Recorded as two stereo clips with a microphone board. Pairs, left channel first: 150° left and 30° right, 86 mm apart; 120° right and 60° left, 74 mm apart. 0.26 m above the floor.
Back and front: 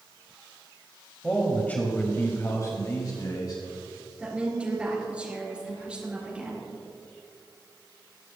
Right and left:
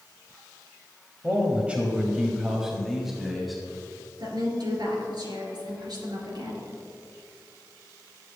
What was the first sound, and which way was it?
A man speaking, 80° left.